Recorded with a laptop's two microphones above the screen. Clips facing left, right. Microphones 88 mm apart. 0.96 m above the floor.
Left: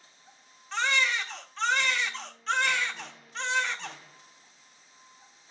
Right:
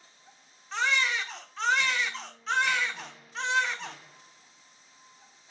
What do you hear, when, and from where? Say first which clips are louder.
0.7 s a baby crying: even; centre (ahead or behind), 1.0 m